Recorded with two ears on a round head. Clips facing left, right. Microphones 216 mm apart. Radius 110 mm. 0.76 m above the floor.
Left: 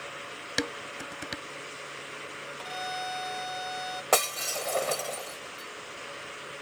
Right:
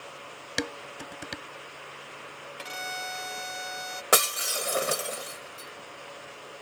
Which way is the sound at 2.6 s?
35° right (ahead or behind).